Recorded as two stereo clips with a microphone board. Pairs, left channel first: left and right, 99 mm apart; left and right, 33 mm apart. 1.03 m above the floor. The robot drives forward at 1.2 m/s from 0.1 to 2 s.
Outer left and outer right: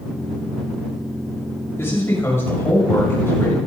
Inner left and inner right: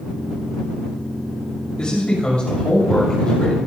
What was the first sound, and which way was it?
A man speaking, 25° left (ahead or behind).